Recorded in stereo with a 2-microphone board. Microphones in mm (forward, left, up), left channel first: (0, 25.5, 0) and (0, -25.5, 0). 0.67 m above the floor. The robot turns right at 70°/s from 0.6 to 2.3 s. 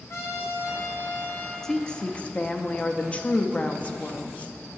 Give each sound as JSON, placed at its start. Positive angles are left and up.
{"t": 0.1, "sound": "a trumpet", "azimuth_deg": 70, "distance_m": 2.5}
{"t": 1.6, "sound": "a woman speaking", "side_deg": 10, "distance_m": 0.5}